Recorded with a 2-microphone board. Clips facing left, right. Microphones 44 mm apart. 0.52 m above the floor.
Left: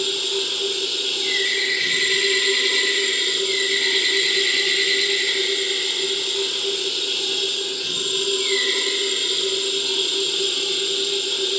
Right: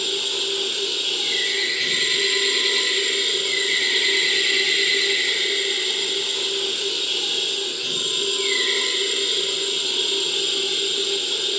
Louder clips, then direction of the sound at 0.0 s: Left 1 dB; 15° right (ahead or behind).